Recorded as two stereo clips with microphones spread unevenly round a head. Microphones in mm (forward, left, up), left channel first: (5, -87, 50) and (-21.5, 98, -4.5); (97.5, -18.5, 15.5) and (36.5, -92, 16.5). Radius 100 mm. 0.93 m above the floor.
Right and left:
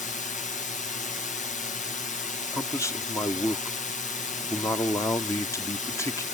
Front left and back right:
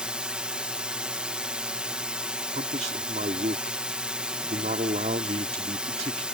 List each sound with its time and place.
0.0 s a drone: 65° right
2.5 s a man speaking: 160° right